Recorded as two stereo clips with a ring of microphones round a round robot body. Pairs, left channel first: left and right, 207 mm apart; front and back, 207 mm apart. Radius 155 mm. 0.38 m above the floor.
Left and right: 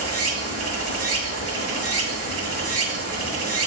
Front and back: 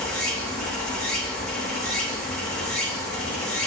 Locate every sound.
0.0 s running water: 90° right, 1.2 m